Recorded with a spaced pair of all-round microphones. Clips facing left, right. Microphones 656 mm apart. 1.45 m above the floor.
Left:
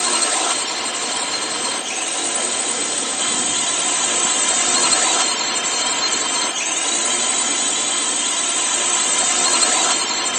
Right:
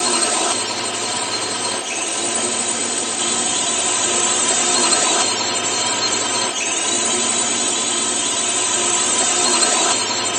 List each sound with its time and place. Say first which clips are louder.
0.0 s a drone: right 4 dB; 65° right (ahead or behind)